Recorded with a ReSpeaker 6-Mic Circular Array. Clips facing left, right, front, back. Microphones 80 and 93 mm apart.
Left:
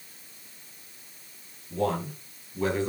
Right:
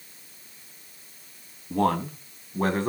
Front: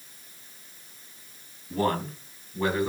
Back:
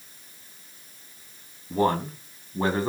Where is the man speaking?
115° right, 3.5 m; by 2.9 s 130° right, 3.5 m.